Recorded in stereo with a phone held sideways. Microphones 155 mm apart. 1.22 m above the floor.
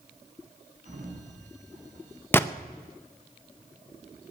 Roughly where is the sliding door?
Right.